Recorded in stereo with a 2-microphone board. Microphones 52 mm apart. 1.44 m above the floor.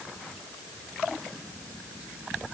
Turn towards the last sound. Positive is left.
No sound to turn to.